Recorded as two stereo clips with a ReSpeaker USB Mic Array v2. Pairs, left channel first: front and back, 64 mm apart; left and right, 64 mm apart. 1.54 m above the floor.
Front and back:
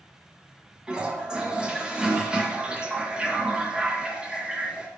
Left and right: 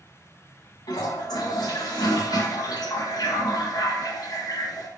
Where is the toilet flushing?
105° left, 2 m.